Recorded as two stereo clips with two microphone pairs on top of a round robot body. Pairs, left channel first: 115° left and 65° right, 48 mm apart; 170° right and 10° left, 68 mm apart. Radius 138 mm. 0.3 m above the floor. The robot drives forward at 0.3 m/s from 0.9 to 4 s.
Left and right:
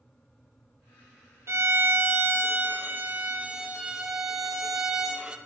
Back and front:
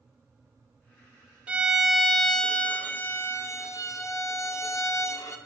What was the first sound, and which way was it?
A violin, 55° right.